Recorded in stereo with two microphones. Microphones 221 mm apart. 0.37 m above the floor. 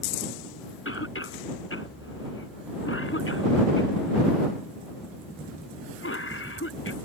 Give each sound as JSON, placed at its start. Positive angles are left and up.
{"t": 0.8, "sound": "a cough", "side_deg": 70}